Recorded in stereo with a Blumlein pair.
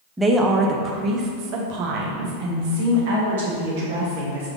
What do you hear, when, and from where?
0.2 s a woman speaking: 10° right, 0.8 m; by 4.5 s 60° right, 2.5 m